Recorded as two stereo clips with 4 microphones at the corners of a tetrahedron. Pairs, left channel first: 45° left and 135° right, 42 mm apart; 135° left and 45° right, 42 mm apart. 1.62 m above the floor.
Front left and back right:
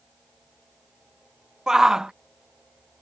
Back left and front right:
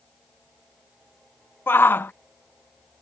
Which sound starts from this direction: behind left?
A shout, at 1.7 s.